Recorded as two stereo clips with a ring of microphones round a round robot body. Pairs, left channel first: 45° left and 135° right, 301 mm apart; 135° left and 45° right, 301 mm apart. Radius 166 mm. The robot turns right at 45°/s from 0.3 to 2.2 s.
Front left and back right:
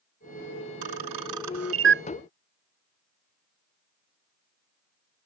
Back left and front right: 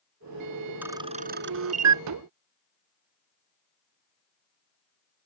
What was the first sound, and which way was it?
A camera shutter, 130° right.